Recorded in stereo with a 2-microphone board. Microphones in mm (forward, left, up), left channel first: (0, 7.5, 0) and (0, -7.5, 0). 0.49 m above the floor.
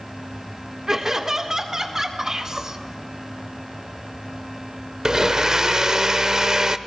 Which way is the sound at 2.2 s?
35° right (ahead or behind).